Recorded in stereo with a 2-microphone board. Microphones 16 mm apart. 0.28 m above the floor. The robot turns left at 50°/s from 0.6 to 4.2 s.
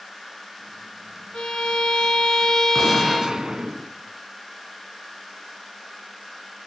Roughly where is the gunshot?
Ahead.